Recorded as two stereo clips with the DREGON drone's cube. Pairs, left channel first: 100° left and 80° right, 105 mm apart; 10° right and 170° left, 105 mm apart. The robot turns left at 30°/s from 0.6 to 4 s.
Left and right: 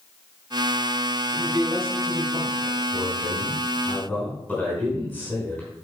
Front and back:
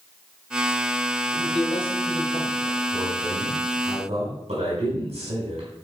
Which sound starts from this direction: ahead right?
A man speaking, at 1.3 s.